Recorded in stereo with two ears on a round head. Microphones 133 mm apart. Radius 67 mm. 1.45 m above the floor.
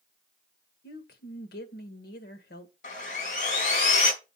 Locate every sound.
0.8 s a woman speaking: 75° left (ahead or behind), 1.9 m
2.8 s sawing: 60° left (ahead or behind), 4 m